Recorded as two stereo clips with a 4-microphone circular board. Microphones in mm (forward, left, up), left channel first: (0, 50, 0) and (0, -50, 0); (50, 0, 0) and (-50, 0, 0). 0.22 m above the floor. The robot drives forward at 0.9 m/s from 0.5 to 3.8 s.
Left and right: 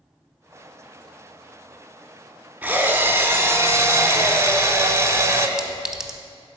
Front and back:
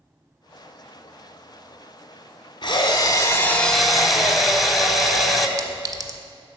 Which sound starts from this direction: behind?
A clink, at 5.6 s.